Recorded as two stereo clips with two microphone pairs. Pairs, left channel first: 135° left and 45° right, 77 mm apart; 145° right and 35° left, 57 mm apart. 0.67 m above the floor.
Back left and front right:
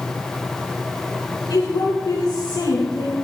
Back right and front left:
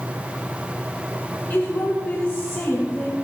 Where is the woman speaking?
165° left, 6.5 m; by 3.1 s 175° left, 5 m.